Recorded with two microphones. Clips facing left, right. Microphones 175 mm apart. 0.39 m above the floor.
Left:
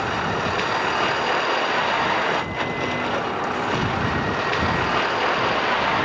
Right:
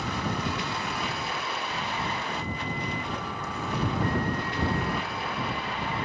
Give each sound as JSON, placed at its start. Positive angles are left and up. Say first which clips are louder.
{"t": 0.0, "sound": "a vehicle", "louder": "left 6 dB", "side_deg": 70}